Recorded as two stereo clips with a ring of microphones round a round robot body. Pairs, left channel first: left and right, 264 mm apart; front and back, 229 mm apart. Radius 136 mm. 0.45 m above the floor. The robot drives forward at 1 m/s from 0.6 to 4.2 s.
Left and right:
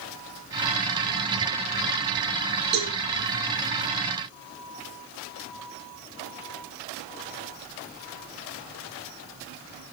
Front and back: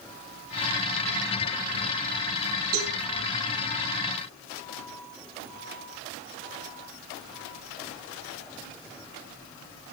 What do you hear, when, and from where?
2.7 s a cowbell: 140° right, 6 m; by 2.9 s 145° right, 6 m